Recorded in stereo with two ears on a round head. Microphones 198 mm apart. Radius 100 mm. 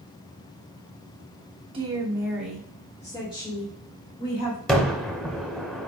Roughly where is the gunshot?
Centre.